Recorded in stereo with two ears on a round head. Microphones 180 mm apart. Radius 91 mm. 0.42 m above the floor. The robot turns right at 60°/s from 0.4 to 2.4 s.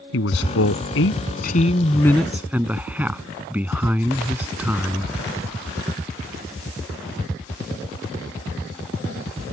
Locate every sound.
0.1 s a man speaking: 70° left; by 5.1 s 170° right